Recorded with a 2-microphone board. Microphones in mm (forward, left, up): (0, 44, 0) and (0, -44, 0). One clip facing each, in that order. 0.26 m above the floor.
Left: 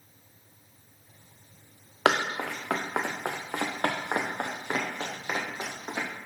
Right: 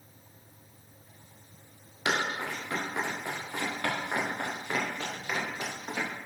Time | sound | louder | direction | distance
2.0 | running footsteps | left 5 dB | 80° left | 1.6 m